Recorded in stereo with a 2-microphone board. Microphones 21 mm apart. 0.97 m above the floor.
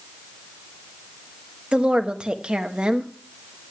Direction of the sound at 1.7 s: 55° right (ahead or behind).